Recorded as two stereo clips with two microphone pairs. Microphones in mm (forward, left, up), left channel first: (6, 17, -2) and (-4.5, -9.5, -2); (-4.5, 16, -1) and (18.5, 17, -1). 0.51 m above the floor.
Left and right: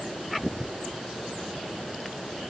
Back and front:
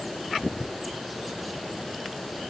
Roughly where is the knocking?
I don't hear knocking.